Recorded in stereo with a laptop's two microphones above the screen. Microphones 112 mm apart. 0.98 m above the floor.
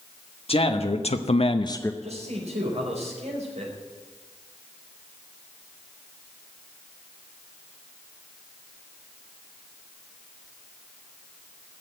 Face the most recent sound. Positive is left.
turn(degrees=-80)